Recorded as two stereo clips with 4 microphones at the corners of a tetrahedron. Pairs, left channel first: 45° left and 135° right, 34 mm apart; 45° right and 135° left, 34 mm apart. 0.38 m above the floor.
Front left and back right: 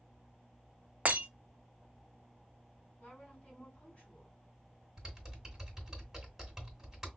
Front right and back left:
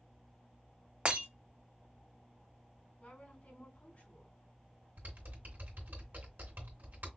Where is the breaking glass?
175° right, 1.1 m.